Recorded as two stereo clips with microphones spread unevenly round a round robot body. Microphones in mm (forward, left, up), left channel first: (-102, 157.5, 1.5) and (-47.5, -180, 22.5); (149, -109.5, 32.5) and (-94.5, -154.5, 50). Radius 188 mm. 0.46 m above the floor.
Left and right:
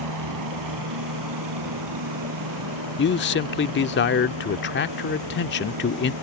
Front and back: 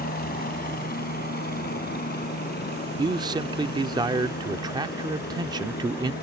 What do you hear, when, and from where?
0.0 s a helicopter: 40° right
3.0 s a man speaking: 120° left